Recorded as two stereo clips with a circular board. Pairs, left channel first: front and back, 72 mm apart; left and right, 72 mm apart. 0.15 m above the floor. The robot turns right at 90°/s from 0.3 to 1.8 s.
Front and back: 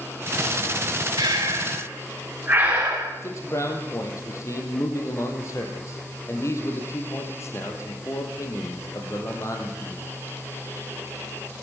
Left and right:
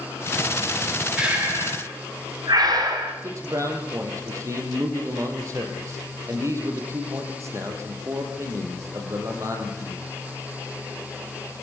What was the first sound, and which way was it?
Breathing, 170° right.